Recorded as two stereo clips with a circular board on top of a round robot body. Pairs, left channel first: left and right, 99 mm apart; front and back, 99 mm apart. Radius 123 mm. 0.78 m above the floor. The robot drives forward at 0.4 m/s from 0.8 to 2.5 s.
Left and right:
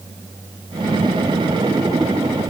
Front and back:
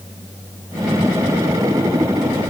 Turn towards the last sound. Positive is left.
No sound to turn to.